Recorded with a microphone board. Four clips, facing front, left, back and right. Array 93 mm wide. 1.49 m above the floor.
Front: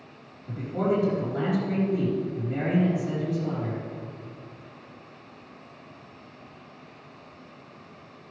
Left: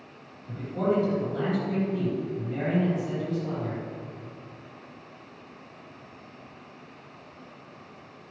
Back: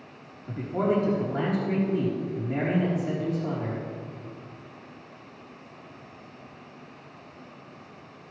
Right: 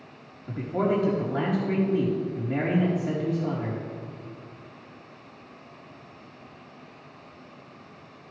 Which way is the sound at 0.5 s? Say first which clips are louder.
Right 1 dB, even; 125° right.